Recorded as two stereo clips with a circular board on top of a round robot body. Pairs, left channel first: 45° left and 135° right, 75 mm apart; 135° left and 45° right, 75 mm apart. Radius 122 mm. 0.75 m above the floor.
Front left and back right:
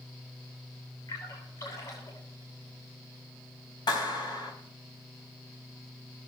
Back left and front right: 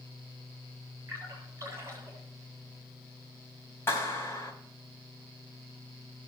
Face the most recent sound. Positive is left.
turn(degrees=75)